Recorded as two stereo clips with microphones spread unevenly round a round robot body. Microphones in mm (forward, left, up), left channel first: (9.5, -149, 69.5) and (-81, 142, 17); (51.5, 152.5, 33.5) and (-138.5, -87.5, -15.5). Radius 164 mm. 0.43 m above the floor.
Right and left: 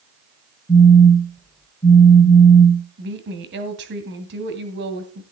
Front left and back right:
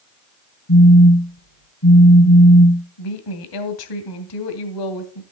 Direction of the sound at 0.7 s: 10° left.